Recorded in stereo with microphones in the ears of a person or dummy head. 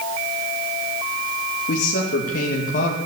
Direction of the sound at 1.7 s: 60° left (ahead or behind).